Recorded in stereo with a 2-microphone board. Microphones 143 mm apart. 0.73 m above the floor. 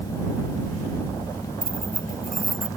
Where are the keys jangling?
70° right (ahead or behind).